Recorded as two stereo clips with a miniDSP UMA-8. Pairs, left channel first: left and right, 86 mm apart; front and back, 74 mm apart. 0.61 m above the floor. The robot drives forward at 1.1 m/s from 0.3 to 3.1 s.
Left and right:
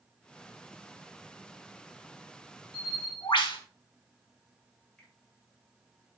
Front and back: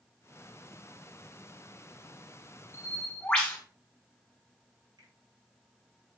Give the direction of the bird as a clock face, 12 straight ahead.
10 o'clock.